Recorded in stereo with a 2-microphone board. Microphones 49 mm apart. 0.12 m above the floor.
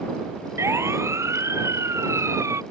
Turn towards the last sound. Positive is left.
turn(degrees=-80)